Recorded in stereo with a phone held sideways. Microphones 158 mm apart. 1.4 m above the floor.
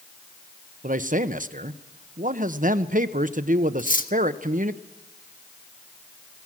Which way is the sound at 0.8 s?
55° right (ahead or behind).